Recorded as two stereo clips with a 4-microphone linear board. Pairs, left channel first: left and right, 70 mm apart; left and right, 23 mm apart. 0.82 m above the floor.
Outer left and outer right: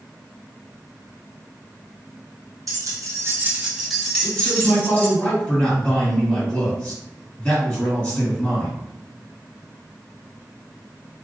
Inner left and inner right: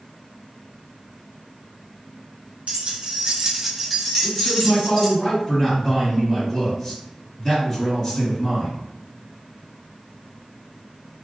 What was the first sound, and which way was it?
Keys jangling, 60° right (ahead or behind).